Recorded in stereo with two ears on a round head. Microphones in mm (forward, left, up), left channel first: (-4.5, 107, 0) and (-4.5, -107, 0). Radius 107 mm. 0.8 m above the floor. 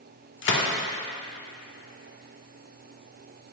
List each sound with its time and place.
0.4 s a gunshot: 50° left (ahead or behind), 1.3 m